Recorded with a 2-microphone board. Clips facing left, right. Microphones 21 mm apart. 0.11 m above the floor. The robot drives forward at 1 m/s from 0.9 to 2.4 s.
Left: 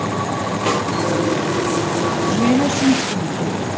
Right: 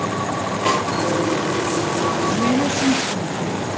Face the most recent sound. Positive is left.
turn(degrees=20)  # may be behind; listen again after turning